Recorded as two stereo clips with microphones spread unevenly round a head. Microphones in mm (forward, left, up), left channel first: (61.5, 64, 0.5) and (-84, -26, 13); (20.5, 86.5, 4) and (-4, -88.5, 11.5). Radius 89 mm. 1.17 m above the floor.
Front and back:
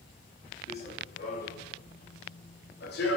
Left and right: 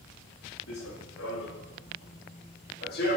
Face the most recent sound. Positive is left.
turn(degrees=45)